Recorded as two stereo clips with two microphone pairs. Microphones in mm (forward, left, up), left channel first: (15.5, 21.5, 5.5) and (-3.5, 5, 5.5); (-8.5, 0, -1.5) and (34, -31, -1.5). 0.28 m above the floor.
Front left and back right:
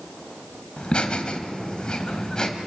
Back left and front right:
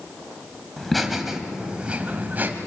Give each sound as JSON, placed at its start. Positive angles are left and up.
{"t": 0.8, "sound": "laughter", "azimuth_deg": 60, "distance_m": 2.0}